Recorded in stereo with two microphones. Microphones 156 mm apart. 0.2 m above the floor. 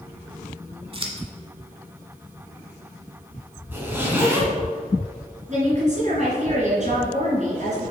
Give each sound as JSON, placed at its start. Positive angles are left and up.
{"t": 0.9, "sound": "scissors", "side_deg": -35, "distance_m": 1.1}
{"t": 3.7, "sound": "a zipper", "side_deg": -15, "distance_m": 2.0}
{"t": 5.5, "sound": "a woman speaking", "side_deg": -50, "distance_m": 2.5}